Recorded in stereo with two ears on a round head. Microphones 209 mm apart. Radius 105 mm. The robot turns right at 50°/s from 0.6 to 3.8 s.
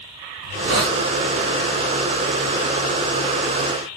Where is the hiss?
60° right (ahead or behind), 1.3 m.